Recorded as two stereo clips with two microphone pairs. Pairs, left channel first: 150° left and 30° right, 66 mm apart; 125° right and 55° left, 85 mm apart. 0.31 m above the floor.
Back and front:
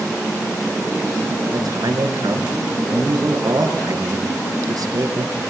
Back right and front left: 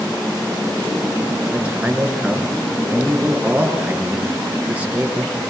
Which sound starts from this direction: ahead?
A man speaking, at 1.5 s.